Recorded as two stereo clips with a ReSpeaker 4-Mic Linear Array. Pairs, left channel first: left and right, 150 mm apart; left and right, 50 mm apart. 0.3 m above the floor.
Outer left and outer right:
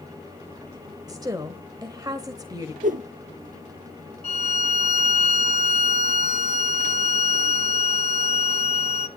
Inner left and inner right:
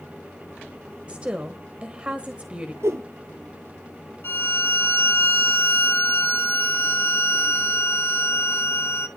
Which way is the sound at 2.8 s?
60° right (ahead or behind).